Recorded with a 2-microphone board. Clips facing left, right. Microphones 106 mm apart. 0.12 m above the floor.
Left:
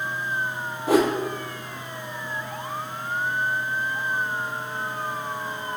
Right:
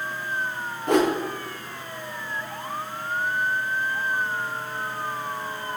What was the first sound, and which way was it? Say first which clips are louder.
A whoosh: left 1 dB; 5° left (ahead or behind).